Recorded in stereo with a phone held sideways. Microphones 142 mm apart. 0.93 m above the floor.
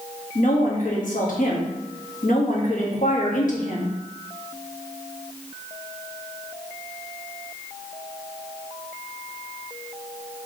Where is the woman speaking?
65° left (ahead or behind), 1.1 m.